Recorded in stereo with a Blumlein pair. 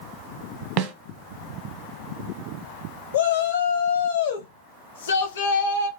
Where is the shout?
60° left, 0.8 m.